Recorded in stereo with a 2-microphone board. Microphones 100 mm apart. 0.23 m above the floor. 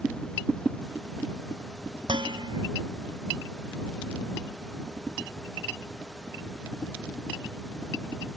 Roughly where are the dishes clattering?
Right.